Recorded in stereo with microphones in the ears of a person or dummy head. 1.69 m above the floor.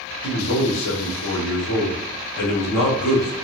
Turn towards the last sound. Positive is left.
turn(degrees=75)  # may be behind; listen again after turning